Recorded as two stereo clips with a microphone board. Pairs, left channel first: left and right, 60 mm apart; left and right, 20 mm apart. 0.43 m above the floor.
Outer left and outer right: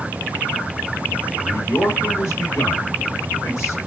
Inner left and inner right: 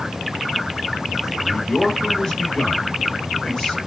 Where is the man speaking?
45° left (ahead or behind), 2 m.